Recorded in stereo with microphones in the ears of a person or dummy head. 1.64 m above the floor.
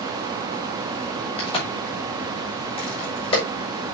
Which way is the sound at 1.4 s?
35° left (ahead or behind).